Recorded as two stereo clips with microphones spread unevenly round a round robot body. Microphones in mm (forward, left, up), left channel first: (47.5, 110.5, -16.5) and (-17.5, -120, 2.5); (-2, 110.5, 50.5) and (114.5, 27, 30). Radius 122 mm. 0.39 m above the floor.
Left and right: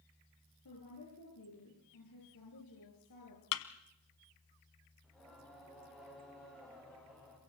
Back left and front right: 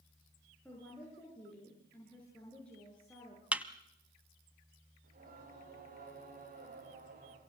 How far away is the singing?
About 9 m.